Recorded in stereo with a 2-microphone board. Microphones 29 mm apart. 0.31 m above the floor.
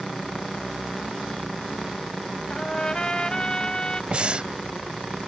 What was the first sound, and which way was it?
A trumpet, 25° left (ahead or behind).